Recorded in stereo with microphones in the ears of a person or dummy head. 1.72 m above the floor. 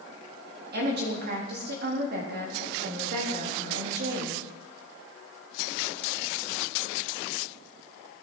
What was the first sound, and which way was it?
A woman speaking, 65° right (ahead or behind).